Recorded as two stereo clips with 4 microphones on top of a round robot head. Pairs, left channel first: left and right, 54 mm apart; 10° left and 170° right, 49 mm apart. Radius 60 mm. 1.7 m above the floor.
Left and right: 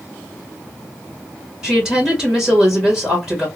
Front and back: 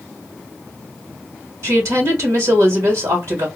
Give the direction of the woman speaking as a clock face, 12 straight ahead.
6 o'clock.